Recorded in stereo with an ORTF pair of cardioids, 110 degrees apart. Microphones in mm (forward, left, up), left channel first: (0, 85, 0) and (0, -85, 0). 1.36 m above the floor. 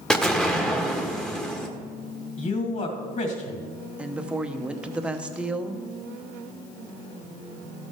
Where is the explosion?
5° left, 1.1 m.